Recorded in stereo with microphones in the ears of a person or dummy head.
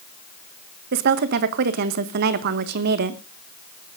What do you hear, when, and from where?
0.9 s a woman speaking: 55° right (ahead or behind), 1.3 m